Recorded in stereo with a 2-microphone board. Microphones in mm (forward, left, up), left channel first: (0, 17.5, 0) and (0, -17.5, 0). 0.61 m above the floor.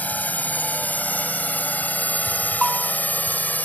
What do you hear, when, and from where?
0.0 s a drone: 50° left (ahead or behind); by 3.7 s 55° left (ahead or behind)
2.6 s a bell: 5° right (ahead or behind)